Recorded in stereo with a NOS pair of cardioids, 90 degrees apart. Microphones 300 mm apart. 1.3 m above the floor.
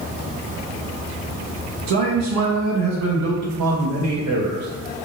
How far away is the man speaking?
About 0.8 m.